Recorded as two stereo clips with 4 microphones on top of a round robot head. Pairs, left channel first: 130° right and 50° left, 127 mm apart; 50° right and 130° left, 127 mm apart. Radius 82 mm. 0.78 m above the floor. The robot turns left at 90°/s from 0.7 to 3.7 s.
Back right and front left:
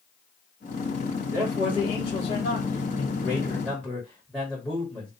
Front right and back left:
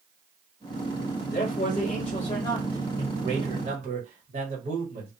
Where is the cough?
No cough in this recording.